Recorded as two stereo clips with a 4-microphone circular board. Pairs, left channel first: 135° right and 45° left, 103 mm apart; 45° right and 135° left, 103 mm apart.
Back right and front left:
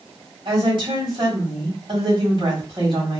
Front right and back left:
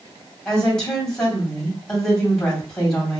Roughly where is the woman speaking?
Ahead left.